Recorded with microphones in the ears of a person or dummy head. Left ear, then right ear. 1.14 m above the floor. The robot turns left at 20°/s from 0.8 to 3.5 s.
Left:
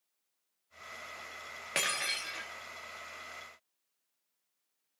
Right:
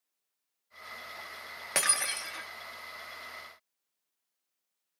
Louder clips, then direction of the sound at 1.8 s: Right 1 dB; 35° right (ahead or behind).